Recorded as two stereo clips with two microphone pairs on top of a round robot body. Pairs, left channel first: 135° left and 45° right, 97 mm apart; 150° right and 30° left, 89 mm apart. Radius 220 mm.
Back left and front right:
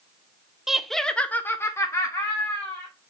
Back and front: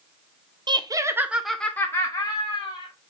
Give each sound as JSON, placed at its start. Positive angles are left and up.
{"t": 0.7, "sound": "laughter", "azimuth_deg": 50, "distance_m": 0.8}